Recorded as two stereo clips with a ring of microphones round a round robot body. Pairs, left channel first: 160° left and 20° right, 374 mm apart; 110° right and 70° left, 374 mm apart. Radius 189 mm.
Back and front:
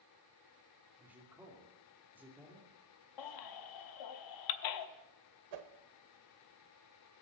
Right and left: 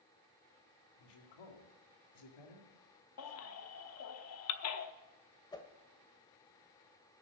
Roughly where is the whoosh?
Ahead right.